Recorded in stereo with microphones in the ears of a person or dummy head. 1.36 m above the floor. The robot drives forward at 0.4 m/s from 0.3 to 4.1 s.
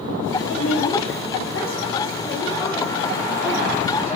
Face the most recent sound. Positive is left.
turn(degrees=35)  # may be behind; listen again after turning